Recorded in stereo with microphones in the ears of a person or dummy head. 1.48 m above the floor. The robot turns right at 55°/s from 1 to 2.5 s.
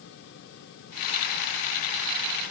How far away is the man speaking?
I don't hear a man speaking.